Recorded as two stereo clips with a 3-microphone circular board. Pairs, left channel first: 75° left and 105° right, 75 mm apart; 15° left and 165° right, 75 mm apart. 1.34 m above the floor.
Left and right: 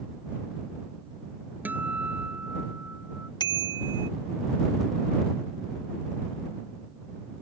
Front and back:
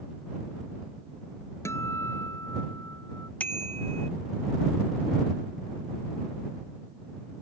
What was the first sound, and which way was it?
A guitar, 40° right.